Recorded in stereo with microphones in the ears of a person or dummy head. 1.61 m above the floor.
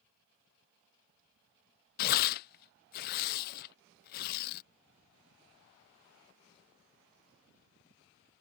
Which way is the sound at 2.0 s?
45° left (ahead or behind).